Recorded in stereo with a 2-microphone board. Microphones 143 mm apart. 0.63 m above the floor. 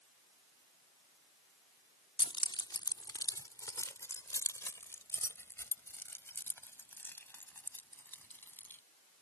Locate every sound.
2.2 s keys jangling: 35° left (ahead or behind); by 8.8 s 15° left (ahead or behind)